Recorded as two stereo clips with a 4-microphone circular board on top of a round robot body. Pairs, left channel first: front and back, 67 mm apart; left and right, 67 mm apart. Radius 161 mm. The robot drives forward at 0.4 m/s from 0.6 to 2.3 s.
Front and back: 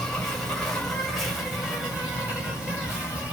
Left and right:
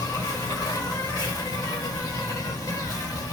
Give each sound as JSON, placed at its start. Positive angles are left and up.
{"t": 0.0, "sound": "an insect", "azimuth_deg": 80, "distance_m": 1.4}